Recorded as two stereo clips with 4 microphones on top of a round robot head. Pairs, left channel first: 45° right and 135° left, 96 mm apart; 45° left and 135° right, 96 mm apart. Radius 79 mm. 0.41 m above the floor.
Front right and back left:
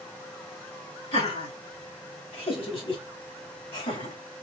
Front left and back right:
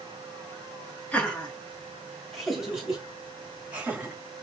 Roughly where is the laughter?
Ahead right.